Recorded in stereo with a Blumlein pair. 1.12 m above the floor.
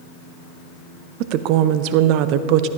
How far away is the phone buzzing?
No phone buzzing in this recording.